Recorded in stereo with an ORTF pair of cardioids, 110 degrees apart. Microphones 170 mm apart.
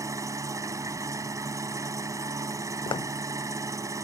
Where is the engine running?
20° right.